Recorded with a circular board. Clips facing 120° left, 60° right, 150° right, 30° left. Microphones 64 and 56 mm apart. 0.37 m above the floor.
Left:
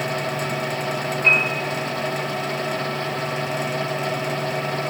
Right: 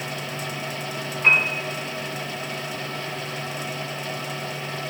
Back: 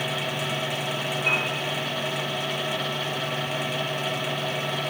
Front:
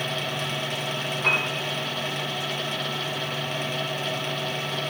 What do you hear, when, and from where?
1.2 s a piano: 15° left, 3 m